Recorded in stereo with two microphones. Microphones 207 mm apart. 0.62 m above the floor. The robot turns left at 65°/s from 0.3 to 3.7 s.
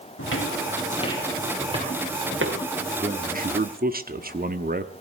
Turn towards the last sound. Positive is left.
turn(degrees=-95)